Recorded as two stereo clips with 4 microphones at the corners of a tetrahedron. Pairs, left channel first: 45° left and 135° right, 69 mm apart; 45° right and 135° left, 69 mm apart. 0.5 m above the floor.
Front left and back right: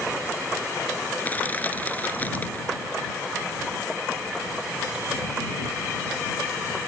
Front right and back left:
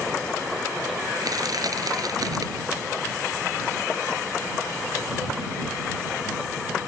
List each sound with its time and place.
1.2 s crushing: 110° left